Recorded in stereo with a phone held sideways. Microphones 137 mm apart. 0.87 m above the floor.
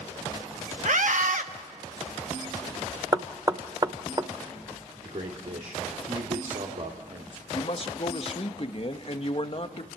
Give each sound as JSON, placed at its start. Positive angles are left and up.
{"t": 0.8, "sound": "a scream", "side_deg": -65, "distance_m": 1.4}
{"t": 3.1, "sound": "knocking", "side_deg": -30, "distance_m": 0.6}
{"t": 5.0, "sound": "a man speaking", "side_deg": -65, "distance_m": 2.0}
{"t": 7.5, "sound": "a man speaking", "side_deg": 45, "distance_m": 1.3}